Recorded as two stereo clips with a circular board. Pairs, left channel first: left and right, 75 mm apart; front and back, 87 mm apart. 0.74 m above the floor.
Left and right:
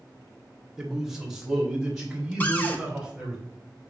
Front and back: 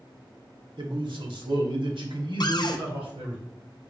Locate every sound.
0.8 s a man speaking: 170° right, 0.8 m; by 3.4 s 175° right, 3 m
2.4 s a cupboard door: 25° left, 0.5 m